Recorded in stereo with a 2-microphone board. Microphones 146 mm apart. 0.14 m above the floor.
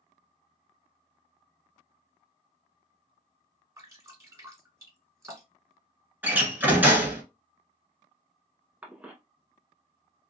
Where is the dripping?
25° right (ahead or behind), 2.0 m.